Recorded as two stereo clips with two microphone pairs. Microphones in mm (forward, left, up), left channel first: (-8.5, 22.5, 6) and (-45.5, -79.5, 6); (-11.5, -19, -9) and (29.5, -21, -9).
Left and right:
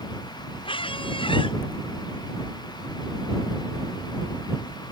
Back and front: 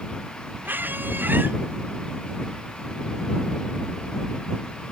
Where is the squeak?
35° left.